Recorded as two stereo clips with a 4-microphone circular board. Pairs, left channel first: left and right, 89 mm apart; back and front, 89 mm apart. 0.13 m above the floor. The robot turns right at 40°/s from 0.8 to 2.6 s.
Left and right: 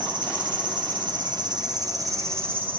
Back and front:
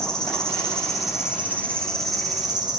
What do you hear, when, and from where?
0.0 s an insect: 100° right, 5 m; by 2.8 s 25° right, 5 m